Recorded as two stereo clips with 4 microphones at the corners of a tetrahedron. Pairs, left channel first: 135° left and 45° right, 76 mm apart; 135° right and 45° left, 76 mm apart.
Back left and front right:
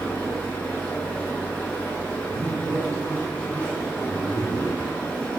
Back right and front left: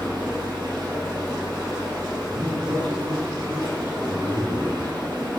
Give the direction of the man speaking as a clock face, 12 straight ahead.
12 o'clock.